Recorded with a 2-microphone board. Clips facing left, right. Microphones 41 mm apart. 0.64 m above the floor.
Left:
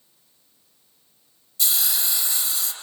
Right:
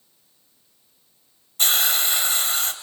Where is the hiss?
45° right (ahead or behind), 3.5 m.